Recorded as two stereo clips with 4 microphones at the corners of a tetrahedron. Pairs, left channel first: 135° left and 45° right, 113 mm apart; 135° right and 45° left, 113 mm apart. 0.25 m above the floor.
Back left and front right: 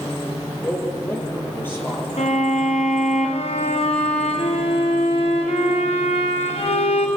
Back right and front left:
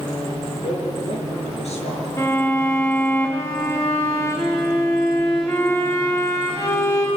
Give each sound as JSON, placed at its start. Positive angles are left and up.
{"t": 0.6, "sound": "a man speaking", "azimuth_deg": -155, "distance_m": 6.0}
{"t": 2.2, "sound": "a violin", "azimuth_deg": 160, "distance_m": 3.5}